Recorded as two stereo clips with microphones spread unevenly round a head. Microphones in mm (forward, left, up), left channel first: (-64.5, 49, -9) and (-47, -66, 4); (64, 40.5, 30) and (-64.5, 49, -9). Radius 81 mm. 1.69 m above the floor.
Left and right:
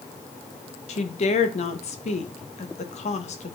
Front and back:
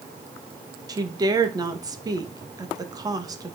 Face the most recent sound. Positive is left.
turn(degrees=115)